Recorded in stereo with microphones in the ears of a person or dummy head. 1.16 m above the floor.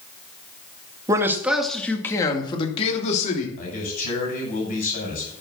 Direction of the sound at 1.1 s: 20° right (ahead or behind).